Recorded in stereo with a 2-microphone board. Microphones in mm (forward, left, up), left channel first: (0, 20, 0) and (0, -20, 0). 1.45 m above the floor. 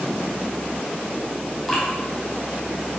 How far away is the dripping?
About 4 m.